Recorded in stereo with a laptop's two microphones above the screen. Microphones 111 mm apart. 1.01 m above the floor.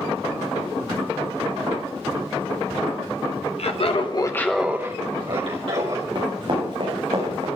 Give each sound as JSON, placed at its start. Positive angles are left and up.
{"t": 3.6, "sound": "laughter", "side_deg": 65, "distance_m": 1.1}
{"t": 6.2, "sound": "running footsteps", "side_deg": -45, "distance_m": 4.5}